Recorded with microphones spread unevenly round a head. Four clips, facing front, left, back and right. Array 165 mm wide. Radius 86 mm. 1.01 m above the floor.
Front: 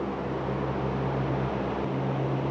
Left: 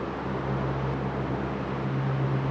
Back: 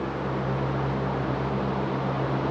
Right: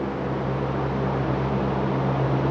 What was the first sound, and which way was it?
Only background noise.